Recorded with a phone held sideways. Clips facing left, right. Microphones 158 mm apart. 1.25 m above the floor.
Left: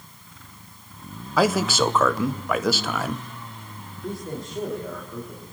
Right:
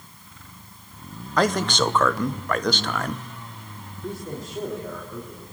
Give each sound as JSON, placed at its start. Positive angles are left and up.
{"t": 1.4, "sound": "a man speaking", "side_deg": 5, "distance_m": 0.6}
{"t": 4.0, "sound": "a man speaking", "side_deg": 0, "distance_m": 3.0}